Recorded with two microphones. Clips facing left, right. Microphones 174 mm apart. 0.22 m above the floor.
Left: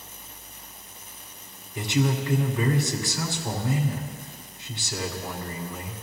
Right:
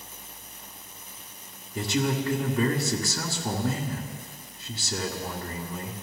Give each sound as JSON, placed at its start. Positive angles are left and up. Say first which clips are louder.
{"t": 1.8, "sound": "a man speaking", "louder": "left 1 dB", "side_deg": -45, "distance_m": 2.5}